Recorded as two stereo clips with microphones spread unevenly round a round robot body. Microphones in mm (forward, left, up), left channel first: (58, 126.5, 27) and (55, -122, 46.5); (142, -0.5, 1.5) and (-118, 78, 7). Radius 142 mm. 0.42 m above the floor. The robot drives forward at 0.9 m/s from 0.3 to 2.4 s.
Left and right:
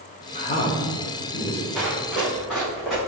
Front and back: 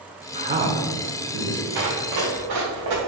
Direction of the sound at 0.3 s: 110° left.